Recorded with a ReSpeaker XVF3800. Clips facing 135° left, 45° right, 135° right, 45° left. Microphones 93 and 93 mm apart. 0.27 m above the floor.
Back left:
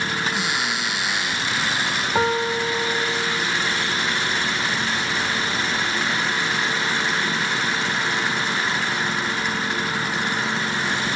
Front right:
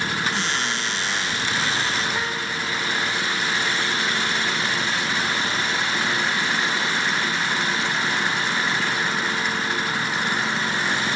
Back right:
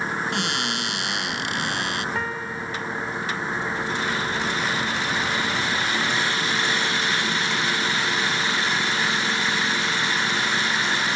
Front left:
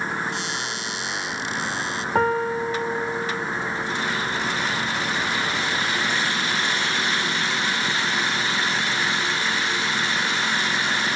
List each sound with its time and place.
0.3 s a cupboard door: 145° right
2.1 s a piano: 90° left